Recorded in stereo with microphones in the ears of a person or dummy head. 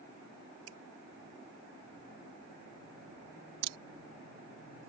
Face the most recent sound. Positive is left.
turn(degrees=-70)  # may be behind; listen again after turning